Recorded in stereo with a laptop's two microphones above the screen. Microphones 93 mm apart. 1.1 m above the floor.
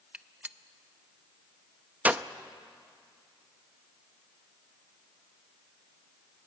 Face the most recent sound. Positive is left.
turn(degrees=-20)  # may be behind; listen again after turning